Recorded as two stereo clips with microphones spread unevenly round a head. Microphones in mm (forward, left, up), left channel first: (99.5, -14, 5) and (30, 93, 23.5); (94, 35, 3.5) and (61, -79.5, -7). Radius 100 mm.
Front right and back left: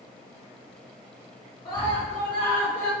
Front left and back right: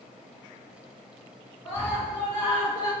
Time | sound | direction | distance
1.6 | a scream | 10° left | 3 m